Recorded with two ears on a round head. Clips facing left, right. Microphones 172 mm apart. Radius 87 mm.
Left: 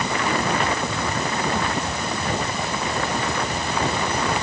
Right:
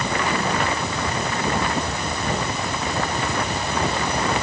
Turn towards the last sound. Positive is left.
No sound to turn to.